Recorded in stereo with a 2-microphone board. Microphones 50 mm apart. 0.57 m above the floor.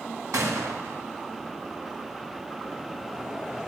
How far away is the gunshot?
About 2.5 m.